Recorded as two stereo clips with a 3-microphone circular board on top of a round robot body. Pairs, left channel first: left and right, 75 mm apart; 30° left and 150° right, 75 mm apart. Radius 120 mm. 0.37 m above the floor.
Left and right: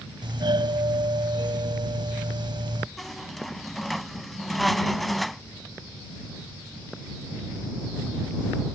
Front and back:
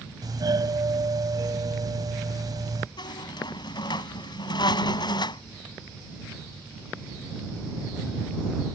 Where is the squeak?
Straight ahead.